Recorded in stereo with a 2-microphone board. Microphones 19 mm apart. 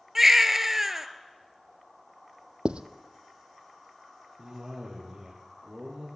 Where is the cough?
35° right (ahead or behind), 4 m.